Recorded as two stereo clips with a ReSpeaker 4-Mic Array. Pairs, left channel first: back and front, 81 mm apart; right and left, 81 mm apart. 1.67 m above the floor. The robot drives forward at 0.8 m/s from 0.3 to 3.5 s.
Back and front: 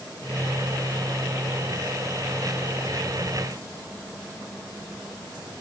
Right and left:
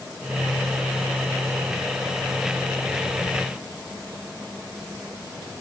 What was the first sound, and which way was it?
Only background noise.